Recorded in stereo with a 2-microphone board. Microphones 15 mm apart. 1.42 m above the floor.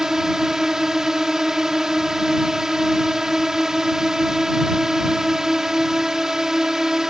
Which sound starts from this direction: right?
A drone, at 0.0 s.